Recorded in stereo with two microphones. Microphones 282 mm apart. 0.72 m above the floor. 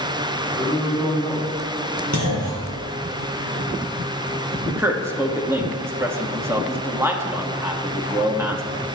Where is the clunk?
75° right (ahead or behind), 2.5 m.